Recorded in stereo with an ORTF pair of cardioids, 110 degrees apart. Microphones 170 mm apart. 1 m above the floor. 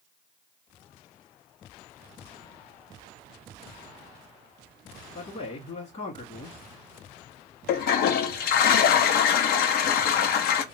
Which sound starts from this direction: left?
A toilet flushing, at 7.7 s.